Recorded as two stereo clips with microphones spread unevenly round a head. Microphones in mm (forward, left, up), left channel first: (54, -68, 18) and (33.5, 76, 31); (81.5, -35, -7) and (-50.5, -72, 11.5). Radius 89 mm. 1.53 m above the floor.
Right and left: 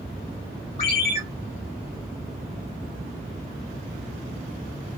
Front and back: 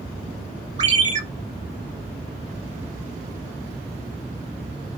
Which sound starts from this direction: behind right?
A ringtone, at 0.8 s.